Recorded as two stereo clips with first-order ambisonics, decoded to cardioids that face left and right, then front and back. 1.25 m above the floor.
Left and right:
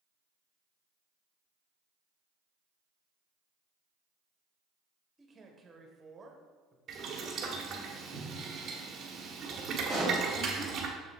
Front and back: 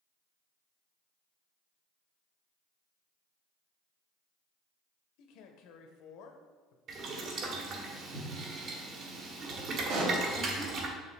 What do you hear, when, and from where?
5.2 s a man speaking: 15° right, 1.1 m
6.9 s boiling: 145° right, 1.2 m
9.9 s a pop: straight behind, 3 m